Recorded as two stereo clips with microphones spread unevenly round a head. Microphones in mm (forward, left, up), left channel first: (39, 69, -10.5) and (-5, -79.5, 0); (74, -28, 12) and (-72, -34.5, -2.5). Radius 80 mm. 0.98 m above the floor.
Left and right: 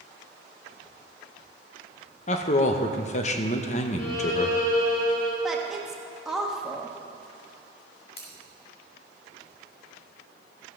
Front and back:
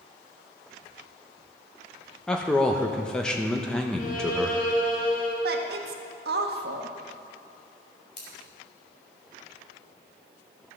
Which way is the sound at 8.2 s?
50° left.